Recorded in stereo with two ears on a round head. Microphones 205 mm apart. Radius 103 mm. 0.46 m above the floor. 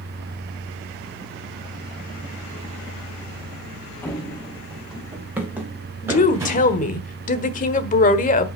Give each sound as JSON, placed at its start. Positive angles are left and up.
{"t": 4.0, "sound": "running footsteps", "side_deg": 5, "distance_m": 1.8}
{"t": 6.0, "sound": "a woman speaking", "side_deg": 35, "distance_m": 1.3}